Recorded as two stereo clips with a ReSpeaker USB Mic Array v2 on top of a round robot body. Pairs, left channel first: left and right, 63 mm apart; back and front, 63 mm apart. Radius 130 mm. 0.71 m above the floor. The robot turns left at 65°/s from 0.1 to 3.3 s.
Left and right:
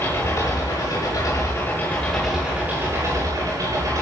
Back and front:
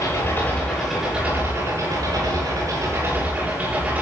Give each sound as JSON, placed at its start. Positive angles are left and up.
{"t": 0.0, "sound": "an engine running", "azimuth_deg": 140, "distance_m": 9.5}